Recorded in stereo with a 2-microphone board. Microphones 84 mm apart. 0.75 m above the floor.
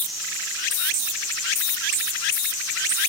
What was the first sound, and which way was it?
Only background noise.